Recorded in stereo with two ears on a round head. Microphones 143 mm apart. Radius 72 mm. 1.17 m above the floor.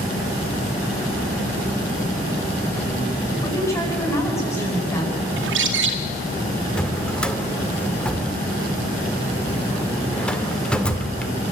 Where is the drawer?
5° left (ahead or behind), 1.5 m.